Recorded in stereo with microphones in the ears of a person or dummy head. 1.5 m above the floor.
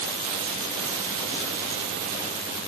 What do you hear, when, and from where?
Only background noise.